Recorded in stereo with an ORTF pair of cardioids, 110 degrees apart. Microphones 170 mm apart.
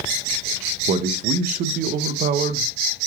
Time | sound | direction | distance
0.9 | a man speaking | 55° right | 0.6 m